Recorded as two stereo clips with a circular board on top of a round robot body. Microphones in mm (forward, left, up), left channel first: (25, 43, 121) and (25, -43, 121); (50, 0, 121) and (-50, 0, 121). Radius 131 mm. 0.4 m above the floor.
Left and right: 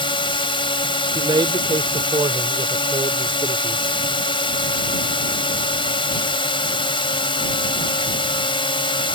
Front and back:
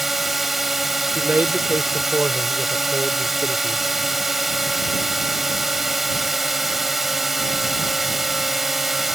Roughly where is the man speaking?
Right.